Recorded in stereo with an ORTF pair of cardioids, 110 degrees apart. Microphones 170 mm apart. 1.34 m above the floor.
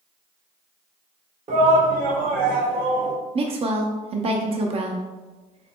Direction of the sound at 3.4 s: 35° right.